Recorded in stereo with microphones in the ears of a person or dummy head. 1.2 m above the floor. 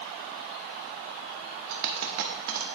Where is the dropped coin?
60° right (ahead or behind), 1.0 m.